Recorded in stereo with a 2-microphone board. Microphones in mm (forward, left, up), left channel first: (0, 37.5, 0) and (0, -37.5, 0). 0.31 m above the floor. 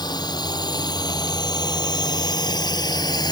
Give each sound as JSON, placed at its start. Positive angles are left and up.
{"t": 0.0, "sound": "a drone", "side_deg": 75}